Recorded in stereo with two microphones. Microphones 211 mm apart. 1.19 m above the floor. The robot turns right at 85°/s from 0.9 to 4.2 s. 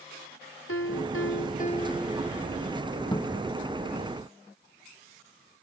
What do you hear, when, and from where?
0.7 s a piano: 80° left; by 2.6 s 135° right
3.1 s a cupboard door: 160° left; by 3.6 s 165° right